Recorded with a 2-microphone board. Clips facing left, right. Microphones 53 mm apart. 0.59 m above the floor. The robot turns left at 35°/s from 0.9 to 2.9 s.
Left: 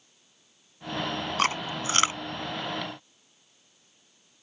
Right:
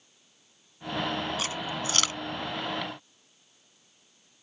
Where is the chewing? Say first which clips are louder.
Left 5 dB; 50° left (ahead or behind); by 2.2 s 25° left (ahead or behind).